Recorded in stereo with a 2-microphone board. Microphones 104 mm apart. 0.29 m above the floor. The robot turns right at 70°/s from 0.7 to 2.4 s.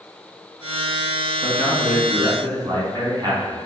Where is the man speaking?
160° left, 2.5 m; by 3.7 s 130° right, 2.5 m.